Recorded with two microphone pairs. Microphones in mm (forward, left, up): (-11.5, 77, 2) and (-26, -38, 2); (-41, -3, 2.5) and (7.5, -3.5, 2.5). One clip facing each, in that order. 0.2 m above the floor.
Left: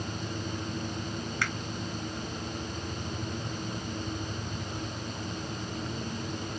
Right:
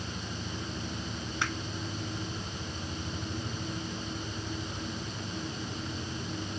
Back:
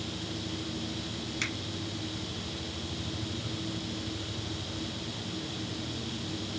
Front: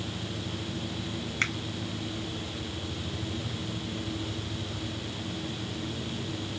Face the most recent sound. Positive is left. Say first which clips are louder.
# right 1 dB, front 6 dB
turn(degrees=-35)